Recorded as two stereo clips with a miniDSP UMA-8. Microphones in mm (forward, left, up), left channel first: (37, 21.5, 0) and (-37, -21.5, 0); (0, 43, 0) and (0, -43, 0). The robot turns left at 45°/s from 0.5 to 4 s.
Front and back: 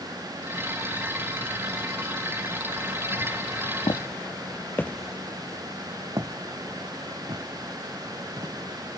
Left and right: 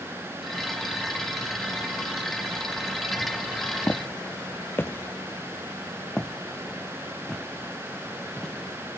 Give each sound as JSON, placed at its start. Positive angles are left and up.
{"t": 3.9, "sound": "footsteps", "azimuth_deg": 20, "distance_m": 1.1}